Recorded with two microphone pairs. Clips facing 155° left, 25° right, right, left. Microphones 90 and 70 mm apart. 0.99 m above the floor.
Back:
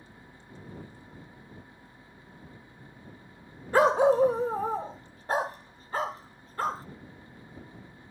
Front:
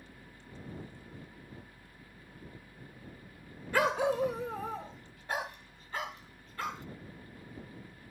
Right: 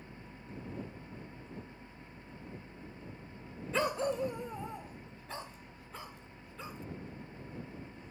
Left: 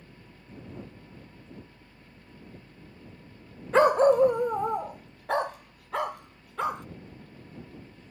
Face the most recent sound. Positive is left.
turn(degrees=105)